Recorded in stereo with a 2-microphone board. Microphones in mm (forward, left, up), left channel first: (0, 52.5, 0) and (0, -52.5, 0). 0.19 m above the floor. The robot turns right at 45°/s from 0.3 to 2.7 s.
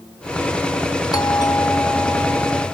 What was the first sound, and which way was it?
A doorbell, 110° left.